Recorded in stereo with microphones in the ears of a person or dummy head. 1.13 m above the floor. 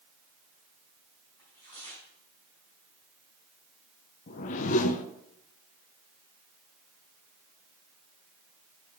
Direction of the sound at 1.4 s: 20° left (ahead or behind).